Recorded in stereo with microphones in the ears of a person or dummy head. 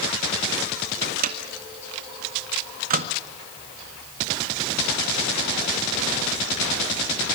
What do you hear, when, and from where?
1.0 s a microwave: 45° right (ahead or behind), 1.7 m